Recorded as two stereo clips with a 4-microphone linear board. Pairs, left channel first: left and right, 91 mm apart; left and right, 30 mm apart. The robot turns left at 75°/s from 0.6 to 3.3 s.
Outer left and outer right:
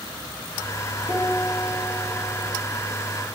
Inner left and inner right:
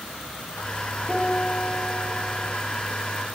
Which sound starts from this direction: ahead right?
A piano, at 1.1 s.